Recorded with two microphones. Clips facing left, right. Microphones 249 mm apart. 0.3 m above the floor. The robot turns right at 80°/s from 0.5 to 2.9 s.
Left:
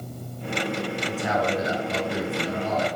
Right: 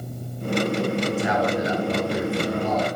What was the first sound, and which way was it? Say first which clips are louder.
A man speaking: right 3 dB; 175° left.